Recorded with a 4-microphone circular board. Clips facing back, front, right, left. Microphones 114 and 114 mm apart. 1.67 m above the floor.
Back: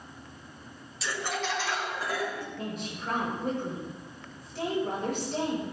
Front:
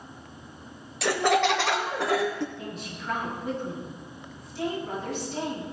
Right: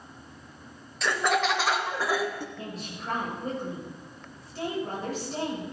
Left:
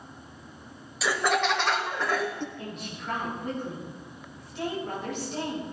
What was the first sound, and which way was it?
Laughter, 5° left.